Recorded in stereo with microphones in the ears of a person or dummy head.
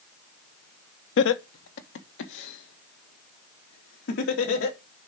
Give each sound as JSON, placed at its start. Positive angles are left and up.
{"t": 1.2, "sound": "laughter", "side_deg": 80, "distance_m": 1.1}